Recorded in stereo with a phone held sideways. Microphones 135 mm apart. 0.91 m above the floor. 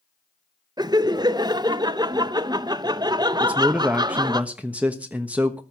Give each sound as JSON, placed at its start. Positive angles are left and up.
{"t": 0.8, "sound": "laughter", "side_deg": -30, "distance_m": 0.7}
{"t": 3.4, "sound": "a man speaking", "side_deg": -10, "distance_m": 1.0}